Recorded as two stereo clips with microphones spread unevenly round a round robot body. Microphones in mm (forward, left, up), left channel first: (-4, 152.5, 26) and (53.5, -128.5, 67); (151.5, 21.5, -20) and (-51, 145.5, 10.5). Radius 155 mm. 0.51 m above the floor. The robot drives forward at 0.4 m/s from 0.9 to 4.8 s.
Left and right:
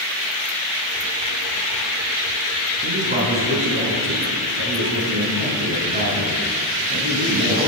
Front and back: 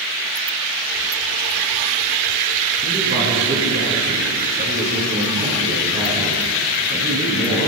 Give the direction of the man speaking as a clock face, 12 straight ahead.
5 o'clock.